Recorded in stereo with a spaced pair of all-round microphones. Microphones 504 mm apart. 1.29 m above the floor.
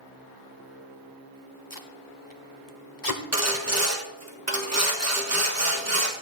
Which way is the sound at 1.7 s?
40° left (ahead or behind).